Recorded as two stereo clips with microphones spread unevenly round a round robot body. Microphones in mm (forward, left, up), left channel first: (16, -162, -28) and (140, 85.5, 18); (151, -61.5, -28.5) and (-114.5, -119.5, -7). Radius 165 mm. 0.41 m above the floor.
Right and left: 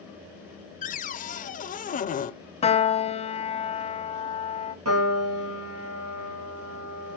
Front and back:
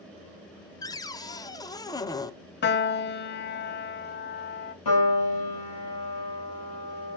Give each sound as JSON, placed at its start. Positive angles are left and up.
{"t": 0.8, "sound": "a cupboard door", "azimuth_deg": -60, "distance_m": 0.6}
{"t": 2.6, "sound": "a piano", "azimuth_deg": -45, "distance_m": 0.6}
{"t": 4.8, "sound": "a piano", "azimuth_deg": 30, "distance_m": 3.5}